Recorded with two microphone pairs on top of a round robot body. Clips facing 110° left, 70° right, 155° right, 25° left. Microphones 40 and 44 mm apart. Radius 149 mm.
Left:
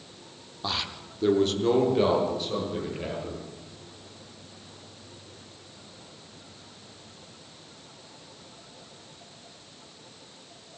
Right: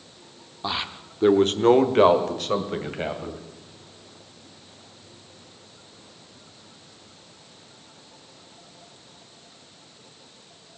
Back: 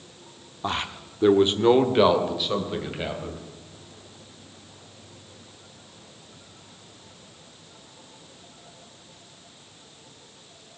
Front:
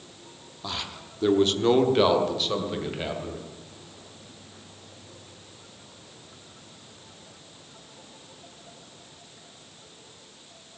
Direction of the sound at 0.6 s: 140° right.